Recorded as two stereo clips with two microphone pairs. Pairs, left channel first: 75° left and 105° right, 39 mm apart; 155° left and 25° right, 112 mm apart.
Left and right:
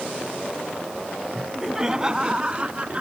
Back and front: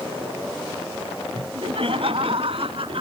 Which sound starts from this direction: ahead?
Laughter, at 1.4 s.